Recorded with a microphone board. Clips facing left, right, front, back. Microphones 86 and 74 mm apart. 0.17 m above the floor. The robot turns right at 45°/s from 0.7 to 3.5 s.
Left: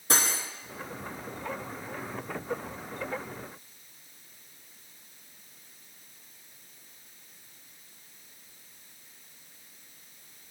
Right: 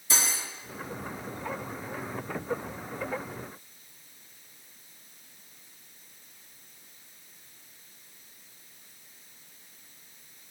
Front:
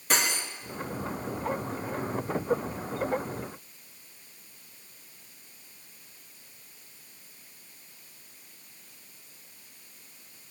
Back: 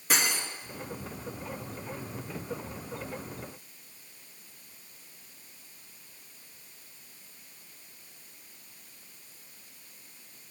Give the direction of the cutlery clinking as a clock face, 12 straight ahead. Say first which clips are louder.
Left 3 dB, front 1 dB; 9 o'clock.